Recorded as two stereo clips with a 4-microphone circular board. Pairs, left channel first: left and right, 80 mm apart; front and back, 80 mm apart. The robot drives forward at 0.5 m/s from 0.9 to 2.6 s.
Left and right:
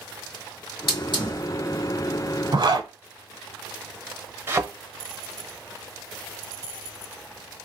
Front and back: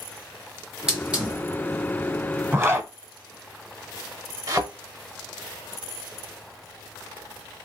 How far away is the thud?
About 0.7 m.